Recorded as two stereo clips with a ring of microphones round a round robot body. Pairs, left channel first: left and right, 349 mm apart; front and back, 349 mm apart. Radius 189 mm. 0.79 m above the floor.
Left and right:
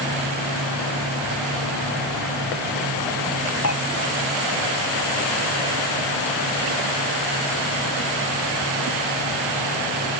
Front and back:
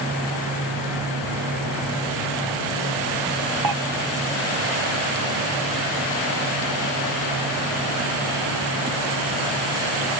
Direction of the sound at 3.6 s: 140° left.